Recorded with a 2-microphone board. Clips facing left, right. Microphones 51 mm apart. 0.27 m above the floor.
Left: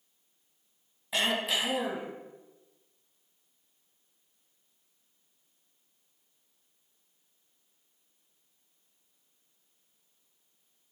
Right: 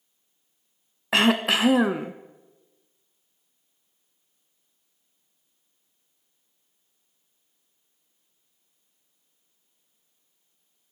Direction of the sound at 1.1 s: 85° right.